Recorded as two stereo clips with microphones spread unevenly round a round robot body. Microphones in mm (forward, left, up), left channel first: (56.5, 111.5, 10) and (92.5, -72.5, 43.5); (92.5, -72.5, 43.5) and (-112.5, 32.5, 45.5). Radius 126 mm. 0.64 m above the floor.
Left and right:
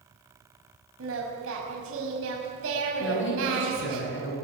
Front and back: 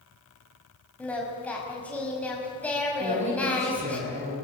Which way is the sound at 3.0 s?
90° left.